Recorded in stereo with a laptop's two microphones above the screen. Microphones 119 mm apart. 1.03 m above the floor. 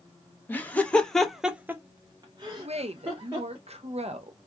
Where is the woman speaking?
60° right (ahead or behind), 0.6 m.